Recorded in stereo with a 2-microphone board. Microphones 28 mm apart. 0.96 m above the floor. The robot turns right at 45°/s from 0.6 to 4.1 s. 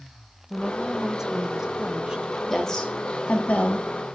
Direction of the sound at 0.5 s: 10° right (ahead or behind).